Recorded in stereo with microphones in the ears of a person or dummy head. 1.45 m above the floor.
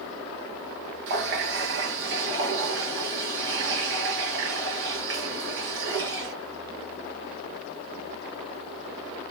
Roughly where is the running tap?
Right.